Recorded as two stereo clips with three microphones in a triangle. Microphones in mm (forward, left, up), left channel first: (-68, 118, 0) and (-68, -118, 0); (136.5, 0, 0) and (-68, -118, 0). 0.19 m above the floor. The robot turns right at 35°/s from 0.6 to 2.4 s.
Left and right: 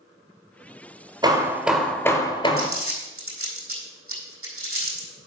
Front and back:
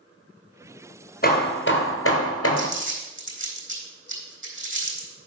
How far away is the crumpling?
About 4 m.